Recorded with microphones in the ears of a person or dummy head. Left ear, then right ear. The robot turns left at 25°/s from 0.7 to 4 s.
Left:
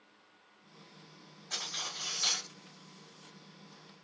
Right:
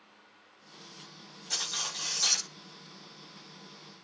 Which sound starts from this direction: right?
Cutlery clinking, at 1.5 s.